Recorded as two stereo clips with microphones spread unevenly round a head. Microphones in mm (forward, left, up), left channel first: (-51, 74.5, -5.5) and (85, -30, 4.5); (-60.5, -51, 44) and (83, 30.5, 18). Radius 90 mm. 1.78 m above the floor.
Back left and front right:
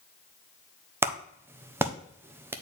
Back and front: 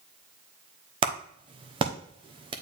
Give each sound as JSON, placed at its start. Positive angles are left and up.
{"t": 1.0, "sound": "a clap", "azimuth_deg": 0, "distance_m": 0.6}